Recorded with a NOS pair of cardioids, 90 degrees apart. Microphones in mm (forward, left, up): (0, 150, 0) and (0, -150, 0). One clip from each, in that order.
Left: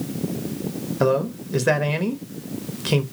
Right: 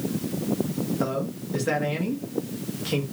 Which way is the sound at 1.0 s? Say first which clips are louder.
Left 12 dB; 45° left.